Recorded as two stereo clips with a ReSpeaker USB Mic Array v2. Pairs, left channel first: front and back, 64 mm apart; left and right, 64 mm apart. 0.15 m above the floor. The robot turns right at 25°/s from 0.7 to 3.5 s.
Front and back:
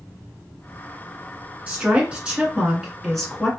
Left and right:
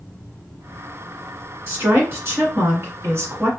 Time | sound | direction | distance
1.7 | a woman speaking | 125° right | 1.8 m